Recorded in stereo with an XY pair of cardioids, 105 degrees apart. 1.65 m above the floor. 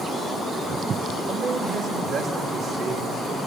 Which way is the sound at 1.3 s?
60° right.